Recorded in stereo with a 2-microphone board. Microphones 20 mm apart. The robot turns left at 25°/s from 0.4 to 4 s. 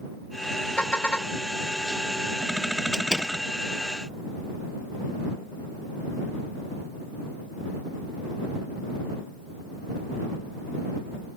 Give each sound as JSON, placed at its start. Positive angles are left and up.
{"t": 0.8, "sound": "a car horn", "side_deg": 75}
{"t": 2.9, "sound": "a door slam", "side_deg": -25}